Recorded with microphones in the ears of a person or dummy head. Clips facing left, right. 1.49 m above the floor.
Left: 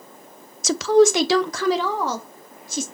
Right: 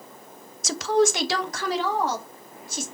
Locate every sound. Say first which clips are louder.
0.6 s a woman speaking: left 6 dB; 60° left (ahead or behind), 0.6 m; by 2.9 s 70° left (ahead or behind), 2.5 m